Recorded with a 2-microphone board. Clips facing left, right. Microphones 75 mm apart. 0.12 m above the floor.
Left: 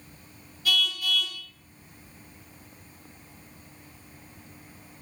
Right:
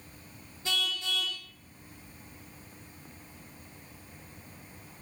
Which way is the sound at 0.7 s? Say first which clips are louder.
Left 5 dB; 25° right (ahead or behind).